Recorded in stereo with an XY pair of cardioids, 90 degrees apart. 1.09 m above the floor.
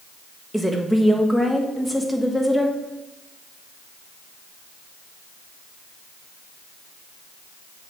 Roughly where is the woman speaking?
Ahead.